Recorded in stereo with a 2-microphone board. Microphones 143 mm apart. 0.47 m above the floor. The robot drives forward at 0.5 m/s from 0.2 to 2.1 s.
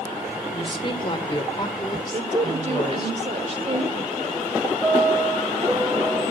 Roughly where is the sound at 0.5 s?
Left.